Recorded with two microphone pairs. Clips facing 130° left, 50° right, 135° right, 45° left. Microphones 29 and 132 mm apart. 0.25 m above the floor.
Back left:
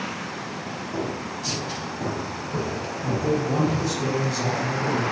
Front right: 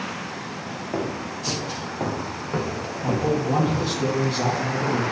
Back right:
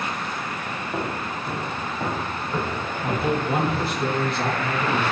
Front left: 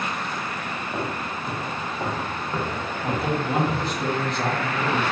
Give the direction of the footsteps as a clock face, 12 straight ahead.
2 o'clock.